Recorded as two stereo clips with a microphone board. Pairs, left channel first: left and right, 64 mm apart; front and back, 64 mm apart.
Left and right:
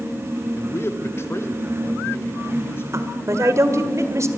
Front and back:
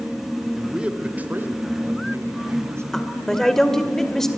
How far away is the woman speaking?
About 1.9 m.